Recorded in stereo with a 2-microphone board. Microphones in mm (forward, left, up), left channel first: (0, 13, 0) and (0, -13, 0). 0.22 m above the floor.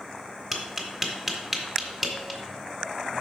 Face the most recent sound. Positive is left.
turn(degrees=0)  # may be behind; listen again after turning